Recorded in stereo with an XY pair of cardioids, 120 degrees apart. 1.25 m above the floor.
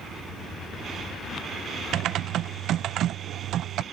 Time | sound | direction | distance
1.9 | typing on a keyboard | 65° right | ?